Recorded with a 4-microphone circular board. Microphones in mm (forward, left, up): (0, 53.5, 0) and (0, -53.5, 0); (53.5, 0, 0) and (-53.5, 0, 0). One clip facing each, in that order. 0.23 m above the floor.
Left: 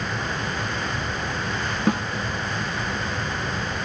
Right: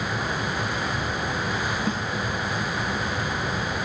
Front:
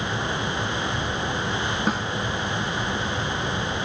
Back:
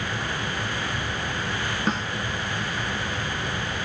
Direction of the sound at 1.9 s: 85° left.